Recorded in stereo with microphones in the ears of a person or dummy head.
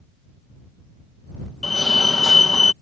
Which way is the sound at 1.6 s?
5° left (ahead or behind).